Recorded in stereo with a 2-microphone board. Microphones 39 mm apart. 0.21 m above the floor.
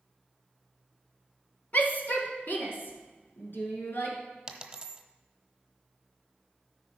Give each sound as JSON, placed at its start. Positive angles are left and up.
{"t": 1.7, "sound": "a shout", "side_deg": 50, "distance_m": 1.7}
{"t": 4.5, "sound": "a dropped coin", "side_deg": -15, "distance_m": 1.0}